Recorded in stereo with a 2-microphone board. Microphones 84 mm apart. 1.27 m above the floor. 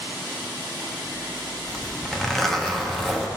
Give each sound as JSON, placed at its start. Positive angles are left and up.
{"t": 1.7, "sound": "a zipper", "side_deg": 5, "distance_m": 0.6}